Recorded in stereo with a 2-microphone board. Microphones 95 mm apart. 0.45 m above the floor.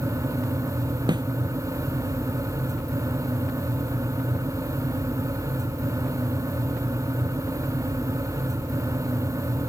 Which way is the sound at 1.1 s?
50° right (ahead or behind).